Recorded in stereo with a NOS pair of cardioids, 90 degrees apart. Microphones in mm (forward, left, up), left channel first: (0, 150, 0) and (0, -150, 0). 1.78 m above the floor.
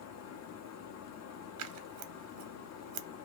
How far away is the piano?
No piano in this recording.